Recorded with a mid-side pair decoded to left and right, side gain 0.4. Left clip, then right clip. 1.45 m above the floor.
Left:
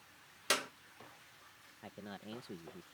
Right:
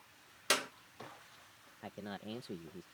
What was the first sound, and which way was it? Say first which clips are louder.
A clap: right 1 dB; 15° right.